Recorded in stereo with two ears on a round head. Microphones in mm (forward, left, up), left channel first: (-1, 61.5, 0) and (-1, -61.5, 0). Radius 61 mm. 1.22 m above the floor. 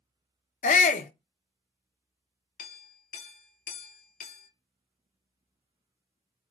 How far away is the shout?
About 0.5 m.